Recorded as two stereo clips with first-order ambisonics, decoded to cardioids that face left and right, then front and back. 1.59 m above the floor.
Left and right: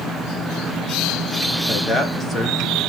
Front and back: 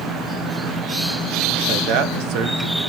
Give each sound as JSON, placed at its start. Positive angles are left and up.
{"t": 1.7, "sound": "a man speaking", "azimuth_deg": 170, "distance_m": 1.5}